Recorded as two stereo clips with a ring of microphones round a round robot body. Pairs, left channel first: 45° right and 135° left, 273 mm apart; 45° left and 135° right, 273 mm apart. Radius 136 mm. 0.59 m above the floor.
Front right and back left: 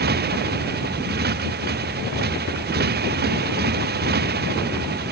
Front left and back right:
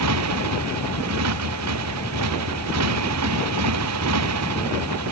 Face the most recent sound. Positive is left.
turn(degrees=-170)